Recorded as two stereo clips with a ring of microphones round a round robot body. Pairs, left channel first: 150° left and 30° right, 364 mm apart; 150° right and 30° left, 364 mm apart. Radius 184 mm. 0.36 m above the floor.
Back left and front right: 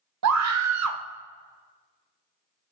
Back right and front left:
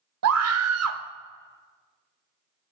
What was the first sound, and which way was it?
A scream, 5° right.